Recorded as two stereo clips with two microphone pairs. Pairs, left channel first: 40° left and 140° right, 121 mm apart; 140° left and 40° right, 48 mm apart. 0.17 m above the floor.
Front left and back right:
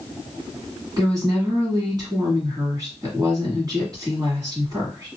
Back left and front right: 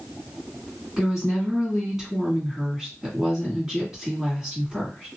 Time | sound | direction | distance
1.0 | a woman speaking | 115° right | 1.6 m